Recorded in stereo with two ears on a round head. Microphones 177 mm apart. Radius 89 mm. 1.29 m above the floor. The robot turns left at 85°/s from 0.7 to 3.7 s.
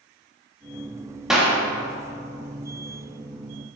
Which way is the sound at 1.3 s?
5° right (ahead or behind).